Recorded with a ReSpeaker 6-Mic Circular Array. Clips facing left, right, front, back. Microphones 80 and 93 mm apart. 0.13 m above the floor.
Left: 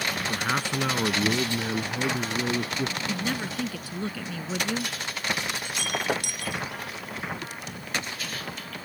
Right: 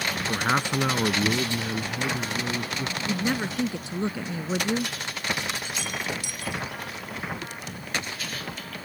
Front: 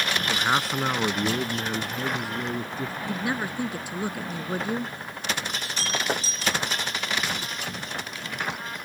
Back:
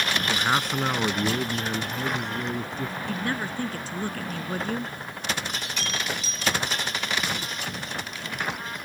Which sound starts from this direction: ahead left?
Breaking glass, at 5.6 s.